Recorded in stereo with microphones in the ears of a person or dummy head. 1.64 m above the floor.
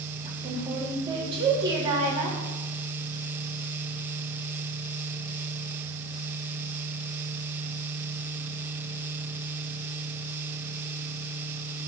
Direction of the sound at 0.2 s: 25° right (ahead or behind).